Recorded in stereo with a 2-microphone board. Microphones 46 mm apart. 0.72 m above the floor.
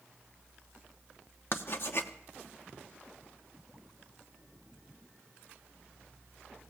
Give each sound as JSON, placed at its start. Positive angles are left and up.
{"t": 1.5, "sound": "writing", "side_deg": 55, "distance_m": 1.0}